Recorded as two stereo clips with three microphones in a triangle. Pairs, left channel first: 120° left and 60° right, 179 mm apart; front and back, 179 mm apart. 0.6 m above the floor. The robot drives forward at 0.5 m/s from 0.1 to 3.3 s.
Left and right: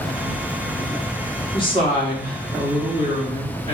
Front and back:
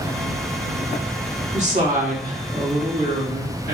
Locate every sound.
1.5 s a woman speaking: 165° left, 1.2 m; by 3.8 s 175° left, 1.9 m